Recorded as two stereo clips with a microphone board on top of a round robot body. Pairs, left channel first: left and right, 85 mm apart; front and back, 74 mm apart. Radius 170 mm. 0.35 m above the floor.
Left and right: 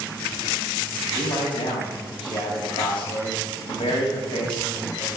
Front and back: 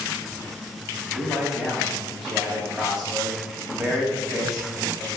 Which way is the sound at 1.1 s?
95° left.